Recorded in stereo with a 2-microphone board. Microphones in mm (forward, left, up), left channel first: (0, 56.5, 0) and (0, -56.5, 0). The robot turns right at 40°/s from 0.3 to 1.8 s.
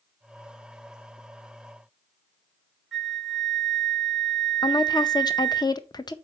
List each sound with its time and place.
2.9 s a flute: centre (ahead or behind), 1.8 m
4.6 s a woman speaking: 35° left (ahead or behind), 0.6 m